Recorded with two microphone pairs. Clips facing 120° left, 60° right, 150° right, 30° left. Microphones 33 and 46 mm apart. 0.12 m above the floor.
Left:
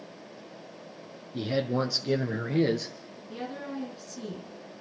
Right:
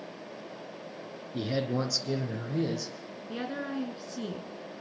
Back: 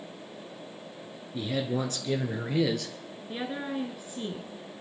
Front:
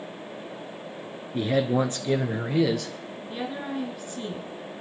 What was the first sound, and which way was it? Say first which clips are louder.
A man speaking: left 2 dB, front 7 dB; 30° left.